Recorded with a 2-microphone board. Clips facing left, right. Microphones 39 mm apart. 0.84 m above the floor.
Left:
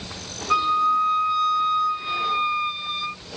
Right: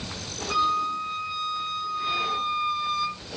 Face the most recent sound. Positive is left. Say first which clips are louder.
# left 5 dB
turn(degrees=20)  # may be behind; listen again after turning